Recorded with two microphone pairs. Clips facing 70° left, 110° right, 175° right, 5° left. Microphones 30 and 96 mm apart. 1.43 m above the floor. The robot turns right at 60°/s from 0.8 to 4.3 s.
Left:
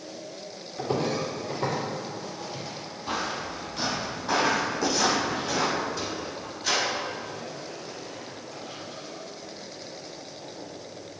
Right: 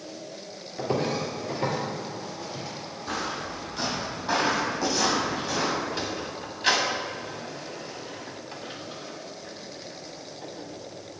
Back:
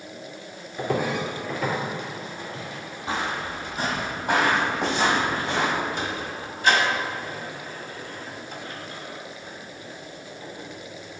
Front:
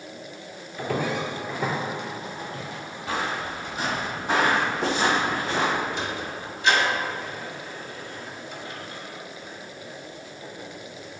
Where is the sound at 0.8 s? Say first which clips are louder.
Even, back 1 dB; 130° right, 1.5 m; by 2.6 s 30° left, 2 m.